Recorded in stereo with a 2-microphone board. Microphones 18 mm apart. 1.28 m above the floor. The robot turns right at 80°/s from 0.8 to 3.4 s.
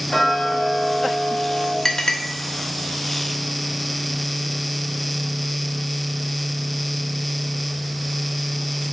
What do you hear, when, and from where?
0.1 s ticking: 25° left, 2.0 m; by 1.8 s 100° left, 2.0 m
1.9 s a clink: 30° left (ahead or behind), 1.1 m; by 2.2 s 55° left (ahead or behind), 1.1 m